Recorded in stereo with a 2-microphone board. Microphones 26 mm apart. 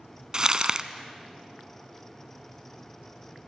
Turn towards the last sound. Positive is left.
turn(degrees=-30)  # may be behind; listen again after turning